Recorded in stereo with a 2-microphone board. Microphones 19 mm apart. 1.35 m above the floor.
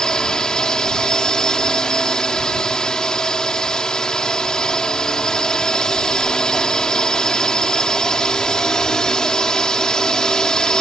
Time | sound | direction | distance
0.0 | a drone | 35° left (ahead or behind) | ?